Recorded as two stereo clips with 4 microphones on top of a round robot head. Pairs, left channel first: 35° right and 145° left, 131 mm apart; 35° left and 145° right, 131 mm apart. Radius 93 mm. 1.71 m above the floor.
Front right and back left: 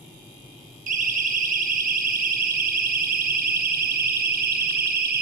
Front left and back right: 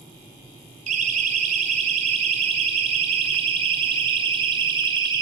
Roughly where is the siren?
Behind.